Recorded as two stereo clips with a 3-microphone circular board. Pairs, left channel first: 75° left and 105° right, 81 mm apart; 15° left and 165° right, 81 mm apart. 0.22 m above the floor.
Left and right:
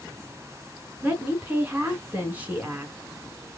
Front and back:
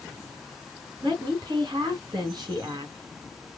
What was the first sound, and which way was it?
A woman speaking, 170° right.